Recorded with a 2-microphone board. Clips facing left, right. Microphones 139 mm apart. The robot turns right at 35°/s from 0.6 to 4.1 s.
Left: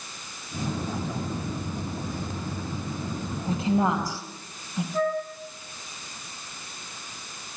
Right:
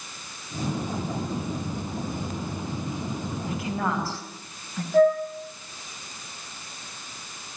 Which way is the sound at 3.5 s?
35° left (ahead or behind).